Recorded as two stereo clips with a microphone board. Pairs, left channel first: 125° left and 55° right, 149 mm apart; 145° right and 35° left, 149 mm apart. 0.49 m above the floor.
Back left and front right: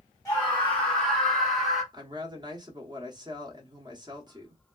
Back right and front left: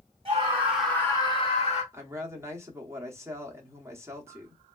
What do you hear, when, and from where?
0.2 s a scream: 50° left, 1.1 m; by 1.8 s 145° right, 1.4 m
1.9 s a woman speaking: 20° right, 0.8 m